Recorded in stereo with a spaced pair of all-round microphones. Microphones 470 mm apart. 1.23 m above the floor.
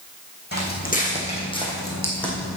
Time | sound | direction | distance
0.5 | footsteps | 20° left (ahead or behind) | 3 m